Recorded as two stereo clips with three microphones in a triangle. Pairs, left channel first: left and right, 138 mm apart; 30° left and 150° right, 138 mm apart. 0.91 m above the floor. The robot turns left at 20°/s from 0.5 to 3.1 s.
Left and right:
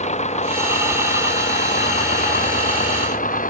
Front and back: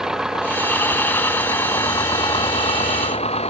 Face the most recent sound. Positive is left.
turn(degrees=75)